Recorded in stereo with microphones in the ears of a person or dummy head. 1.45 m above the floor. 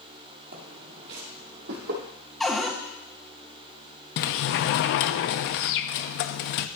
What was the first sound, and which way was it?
Footsteps, 45° right (ahead or behind).